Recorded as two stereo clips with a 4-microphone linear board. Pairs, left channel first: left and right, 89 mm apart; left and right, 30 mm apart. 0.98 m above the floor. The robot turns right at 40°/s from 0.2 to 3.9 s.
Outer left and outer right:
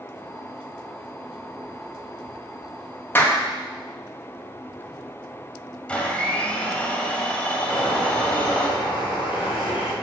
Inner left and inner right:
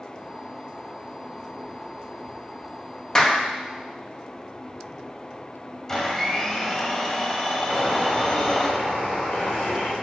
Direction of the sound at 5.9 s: 15° left (ahead or behind).